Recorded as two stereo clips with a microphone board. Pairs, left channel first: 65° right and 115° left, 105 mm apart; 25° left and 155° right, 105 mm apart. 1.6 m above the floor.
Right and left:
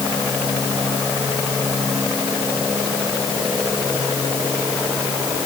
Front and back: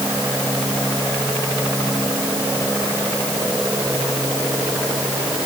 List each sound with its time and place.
Only background noise.